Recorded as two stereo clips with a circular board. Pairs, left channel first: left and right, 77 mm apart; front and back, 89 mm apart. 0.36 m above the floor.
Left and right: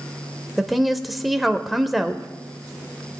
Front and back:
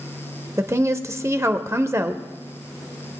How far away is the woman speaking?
About 0.9 m.